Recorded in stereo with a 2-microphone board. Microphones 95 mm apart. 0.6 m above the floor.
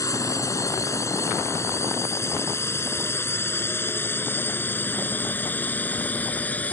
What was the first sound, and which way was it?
A drone, 35° left (ahead or behind).